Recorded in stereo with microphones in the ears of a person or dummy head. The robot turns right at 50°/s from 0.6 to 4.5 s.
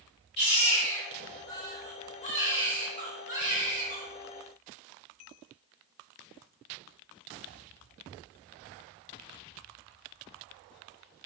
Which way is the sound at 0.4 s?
60° left.